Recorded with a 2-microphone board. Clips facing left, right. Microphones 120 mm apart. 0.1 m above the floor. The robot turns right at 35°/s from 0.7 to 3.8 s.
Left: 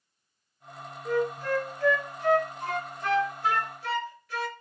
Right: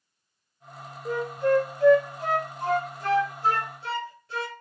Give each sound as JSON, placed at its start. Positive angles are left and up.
{"t": 1.1, "sound": "a flute", "side_deg": -15, "distance_m": 0.7}